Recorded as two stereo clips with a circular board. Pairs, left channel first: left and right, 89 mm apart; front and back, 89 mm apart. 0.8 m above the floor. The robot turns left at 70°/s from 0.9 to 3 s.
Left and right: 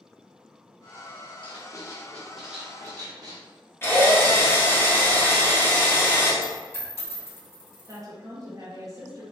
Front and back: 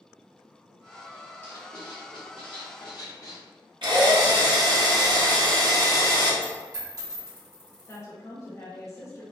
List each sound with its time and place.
1.4 s writing: 65° left, 0.9 m; by 3.4 s 45° right, 0.9 m
3.8 s a drill: 155° left, 0.9 m
6.4 s a dropped coin: 145° left, 1.5 m
7.9 s a woman speaking: 50° right, 0.6 m